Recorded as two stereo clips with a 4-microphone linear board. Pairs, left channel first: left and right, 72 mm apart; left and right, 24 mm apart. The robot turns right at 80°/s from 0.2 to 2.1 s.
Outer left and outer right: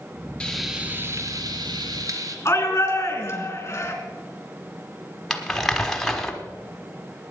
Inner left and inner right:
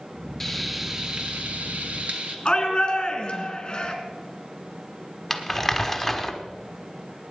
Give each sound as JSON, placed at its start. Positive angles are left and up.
{"t": 0.4, "sound": "frying", "azimuth_deg": 165, "distance_m": 1.7}
{"t": 2.5, "sound": "a shout", "side_deg": 40, "distance_m": 3.5}
{"t": 5.3, "sound": "crumpling", "side_deg": 5, "distance_m": 1.4}